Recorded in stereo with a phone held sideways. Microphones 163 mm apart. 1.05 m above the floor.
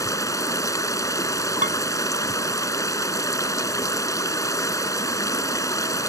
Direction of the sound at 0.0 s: 20° left (ahead or behind).